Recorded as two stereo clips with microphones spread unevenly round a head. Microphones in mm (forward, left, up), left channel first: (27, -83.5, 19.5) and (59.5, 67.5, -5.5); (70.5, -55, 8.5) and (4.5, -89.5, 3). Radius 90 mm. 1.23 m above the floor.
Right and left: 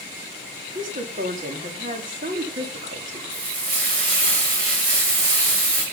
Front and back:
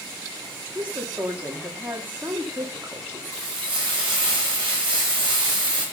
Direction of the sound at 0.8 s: 130° left.